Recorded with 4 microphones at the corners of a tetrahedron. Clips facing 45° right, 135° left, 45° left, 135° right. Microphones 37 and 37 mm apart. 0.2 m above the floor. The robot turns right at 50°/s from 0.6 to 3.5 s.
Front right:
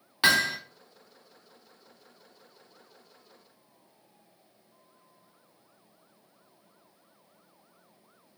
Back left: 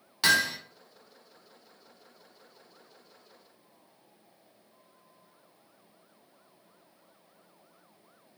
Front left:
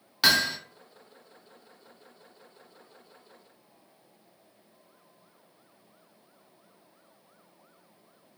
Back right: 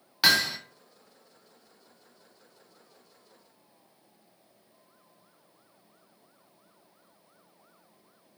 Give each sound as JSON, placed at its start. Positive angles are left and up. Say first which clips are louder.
{"t": 0.2, "sound": "hammering", "louder": "front right 1 dB, even", "azimuth_deg": -55, "distance_m": 0.7}